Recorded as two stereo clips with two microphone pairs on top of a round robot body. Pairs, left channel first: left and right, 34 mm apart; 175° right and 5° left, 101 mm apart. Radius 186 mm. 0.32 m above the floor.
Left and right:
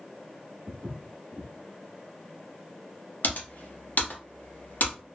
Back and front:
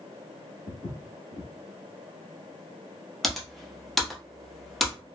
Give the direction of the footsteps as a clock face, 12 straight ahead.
5 o'clock.